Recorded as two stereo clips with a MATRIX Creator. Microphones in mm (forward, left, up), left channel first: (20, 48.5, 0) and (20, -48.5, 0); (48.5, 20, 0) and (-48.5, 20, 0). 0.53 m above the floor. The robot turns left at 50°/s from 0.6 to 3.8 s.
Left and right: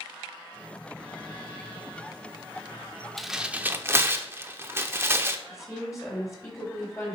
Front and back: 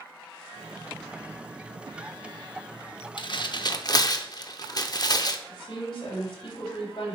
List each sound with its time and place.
3.2 s tearing paper: 5° left, 0.7 m; by 5.4 s 30° right, 0.7 m
5.5 s a woman speaking: 35° left, 3.5 m